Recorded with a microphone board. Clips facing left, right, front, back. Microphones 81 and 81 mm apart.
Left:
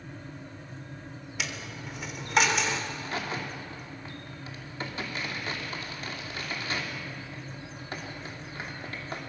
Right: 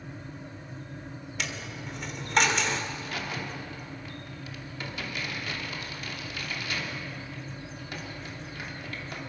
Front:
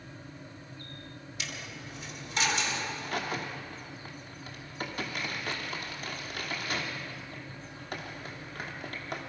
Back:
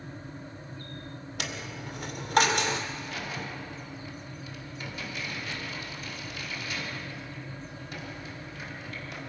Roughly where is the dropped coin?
Behind.